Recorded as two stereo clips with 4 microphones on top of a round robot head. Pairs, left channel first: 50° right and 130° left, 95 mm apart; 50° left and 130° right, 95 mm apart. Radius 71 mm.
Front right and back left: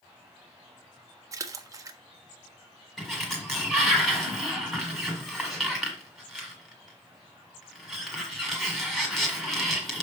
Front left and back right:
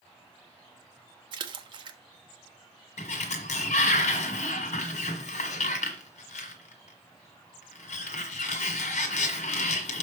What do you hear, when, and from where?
1.3 s a splash: 175° right, 0.8 m
3.0 s a sliding door: 35° left, 1.4 m